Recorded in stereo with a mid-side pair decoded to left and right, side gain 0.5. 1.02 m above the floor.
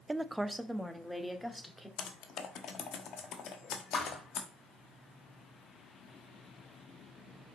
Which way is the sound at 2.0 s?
65° left.